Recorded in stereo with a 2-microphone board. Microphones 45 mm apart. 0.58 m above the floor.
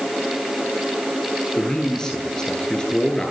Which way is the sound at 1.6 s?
15° left (ahead or behind).